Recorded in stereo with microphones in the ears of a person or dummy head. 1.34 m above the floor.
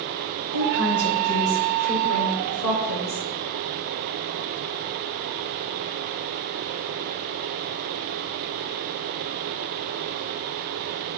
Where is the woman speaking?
55° left (ahead or behind), 1.4 m; by 3.2 s 80° left, 3 m.